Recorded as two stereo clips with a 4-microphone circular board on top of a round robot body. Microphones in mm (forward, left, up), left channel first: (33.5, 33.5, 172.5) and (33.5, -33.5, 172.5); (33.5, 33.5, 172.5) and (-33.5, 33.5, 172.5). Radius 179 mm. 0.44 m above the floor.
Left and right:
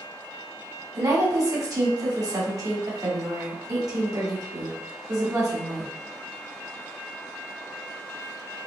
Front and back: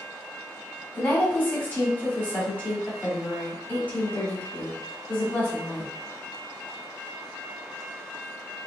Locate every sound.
0.9 s a woman speaking: 65° right, 1.6 m